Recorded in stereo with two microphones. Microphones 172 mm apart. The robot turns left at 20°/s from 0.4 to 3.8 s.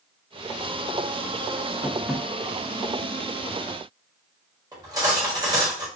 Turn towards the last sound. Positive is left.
turn(degrees=-25)  # may be behind; listen again after turning